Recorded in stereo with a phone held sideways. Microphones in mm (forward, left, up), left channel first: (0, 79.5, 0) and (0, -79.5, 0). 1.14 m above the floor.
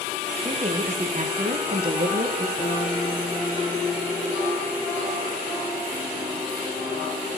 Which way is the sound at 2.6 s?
70° left (ahead or behind).